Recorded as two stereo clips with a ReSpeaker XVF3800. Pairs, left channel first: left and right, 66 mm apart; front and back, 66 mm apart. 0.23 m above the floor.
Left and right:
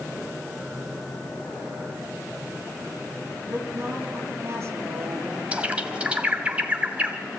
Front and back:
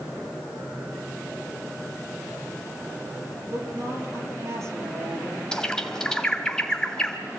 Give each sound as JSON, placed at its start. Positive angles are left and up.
{"t": 3.5, "sound": "a woman speaking", "azimuth_deg": -140, "distance_m": 5.0}
{"t": 5.5, "sound": "a bird", "azimuth_deg": -60, "distance_m": 1.6}